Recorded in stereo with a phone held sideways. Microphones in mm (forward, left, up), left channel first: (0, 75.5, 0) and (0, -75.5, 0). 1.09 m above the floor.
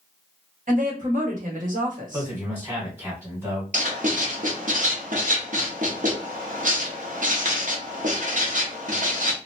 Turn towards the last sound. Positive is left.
turn(degrees=-60)  # may be behind; listen again after turning